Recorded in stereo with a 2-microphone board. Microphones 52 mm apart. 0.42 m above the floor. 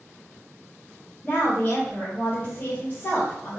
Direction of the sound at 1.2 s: 30° left (ahead or behind).